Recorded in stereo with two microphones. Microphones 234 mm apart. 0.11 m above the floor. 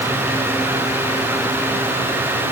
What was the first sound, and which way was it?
Only background noise.